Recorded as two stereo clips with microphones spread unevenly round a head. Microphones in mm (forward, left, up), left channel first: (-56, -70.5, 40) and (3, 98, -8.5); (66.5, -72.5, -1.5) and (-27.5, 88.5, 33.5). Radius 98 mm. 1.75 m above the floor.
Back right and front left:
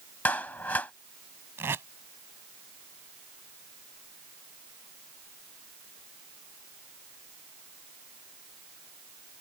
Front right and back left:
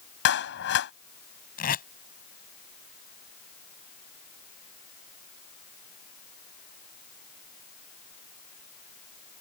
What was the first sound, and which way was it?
A clap, 30° right.